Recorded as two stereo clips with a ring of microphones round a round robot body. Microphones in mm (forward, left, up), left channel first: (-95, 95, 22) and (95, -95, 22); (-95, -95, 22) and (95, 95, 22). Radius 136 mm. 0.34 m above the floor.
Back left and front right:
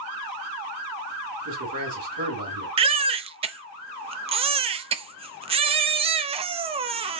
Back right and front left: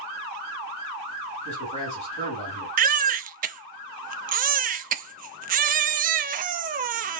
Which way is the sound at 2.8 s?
10° left.